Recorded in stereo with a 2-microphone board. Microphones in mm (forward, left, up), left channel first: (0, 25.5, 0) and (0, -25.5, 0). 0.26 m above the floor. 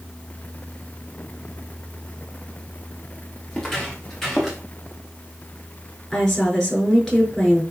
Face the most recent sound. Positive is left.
turn(degrees=10)  # may be behind; listen again after turning